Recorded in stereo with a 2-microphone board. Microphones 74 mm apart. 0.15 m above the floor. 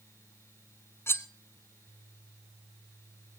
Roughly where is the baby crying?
No baby crying in this recording.